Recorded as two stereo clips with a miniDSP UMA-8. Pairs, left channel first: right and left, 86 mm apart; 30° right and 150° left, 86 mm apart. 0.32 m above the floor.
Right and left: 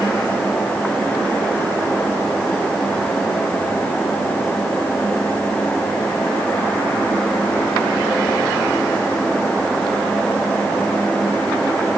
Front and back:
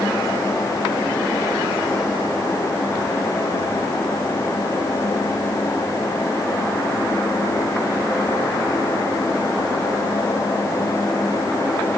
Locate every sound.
Only background noise.